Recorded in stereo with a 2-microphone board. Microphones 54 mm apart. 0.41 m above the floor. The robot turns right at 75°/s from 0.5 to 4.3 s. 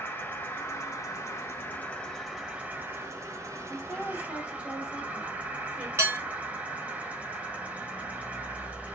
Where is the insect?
50° left, 1.4 m; by 8.9 s 25° right, 1.4 m.